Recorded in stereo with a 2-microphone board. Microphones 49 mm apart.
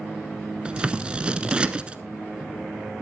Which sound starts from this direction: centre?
Scissors, at 0.7 s.